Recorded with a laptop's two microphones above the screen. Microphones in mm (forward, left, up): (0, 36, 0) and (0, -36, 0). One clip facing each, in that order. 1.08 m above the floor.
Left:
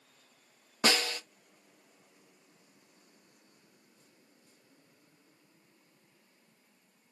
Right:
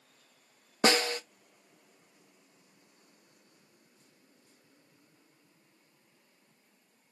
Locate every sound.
0.8 s a snare drum: 30° right (ahead or behind), 0.5 m